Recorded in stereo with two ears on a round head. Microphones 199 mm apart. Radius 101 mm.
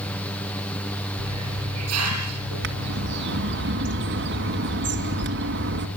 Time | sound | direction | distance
1.2 | a hiss | 80° right | 6 m
2.6 | a bird | 55° right (ahead or behind) | 2 m